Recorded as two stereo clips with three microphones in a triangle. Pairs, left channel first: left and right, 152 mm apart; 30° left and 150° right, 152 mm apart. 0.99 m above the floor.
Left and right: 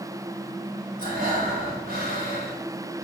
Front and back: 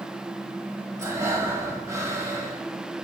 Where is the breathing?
80° right, 2.5 m.